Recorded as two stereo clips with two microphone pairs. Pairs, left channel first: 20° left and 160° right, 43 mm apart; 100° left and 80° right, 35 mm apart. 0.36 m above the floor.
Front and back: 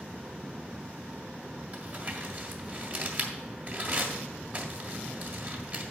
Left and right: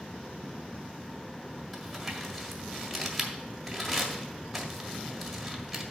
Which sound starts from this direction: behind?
Crumpling, at 1.7 s.